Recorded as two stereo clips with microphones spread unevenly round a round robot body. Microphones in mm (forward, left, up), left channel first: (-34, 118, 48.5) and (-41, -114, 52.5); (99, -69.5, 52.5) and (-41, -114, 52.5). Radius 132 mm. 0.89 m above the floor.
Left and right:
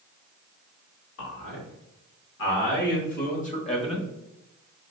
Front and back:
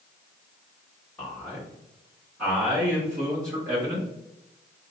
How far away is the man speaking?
About 1.9 m.